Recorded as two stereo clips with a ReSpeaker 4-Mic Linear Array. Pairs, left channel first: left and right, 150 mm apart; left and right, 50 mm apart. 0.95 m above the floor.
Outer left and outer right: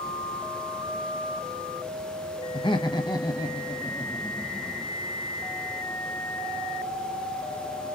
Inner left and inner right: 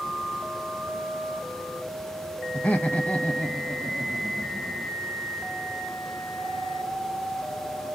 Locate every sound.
2.5 s laughter: 35° left (ahead or behind), 1.0 m; by 4.9 s 15° left (ahead or behind), 2.5 m